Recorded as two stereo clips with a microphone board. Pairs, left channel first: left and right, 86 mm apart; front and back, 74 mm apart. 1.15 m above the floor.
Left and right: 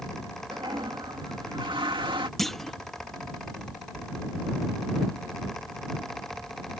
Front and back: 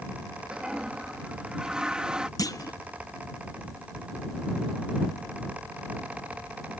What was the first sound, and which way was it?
A toilet flushing, 100° right.